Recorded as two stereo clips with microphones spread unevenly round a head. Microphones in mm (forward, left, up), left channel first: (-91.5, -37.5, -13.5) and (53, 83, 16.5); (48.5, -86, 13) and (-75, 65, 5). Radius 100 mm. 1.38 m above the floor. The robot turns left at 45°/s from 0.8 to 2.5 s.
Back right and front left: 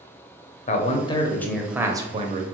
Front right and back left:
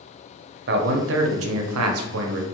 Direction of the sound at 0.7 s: 165° left.